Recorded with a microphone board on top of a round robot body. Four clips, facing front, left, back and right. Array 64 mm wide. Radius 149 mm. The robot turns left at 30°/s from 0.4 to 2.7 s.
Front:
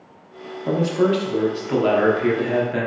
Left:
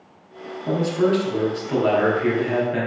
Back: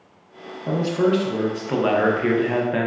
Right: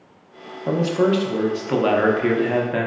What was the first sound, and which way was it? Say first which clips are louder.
A man speaking: right 1 dB, front 1 dB; 75° right.